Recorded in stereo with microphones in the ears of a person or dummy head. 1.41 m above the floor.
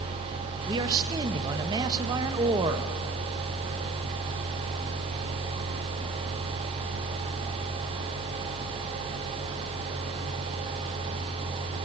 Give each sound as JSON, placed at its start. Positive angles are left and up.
{"t": 0.7, "sound": "a man speaking", "side_deg": -25, "distance_m": 0.6}